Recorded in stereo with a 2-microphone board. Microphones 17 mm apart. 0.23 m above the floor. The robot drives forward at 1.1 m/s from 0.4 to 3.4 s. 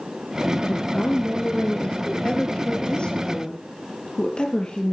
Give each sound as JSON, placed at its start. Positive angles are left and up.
{"t": 0.7, "sound": "a woman speaking", "side_deg": 75, "distance_m": 3.5}